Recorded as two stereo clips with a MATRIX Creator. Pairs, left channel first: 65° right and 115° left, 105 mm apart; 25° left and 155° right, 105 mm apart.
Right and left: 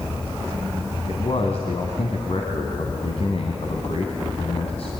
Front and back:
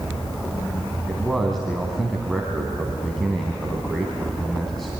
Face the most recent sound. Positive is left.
turn(degrees=-65)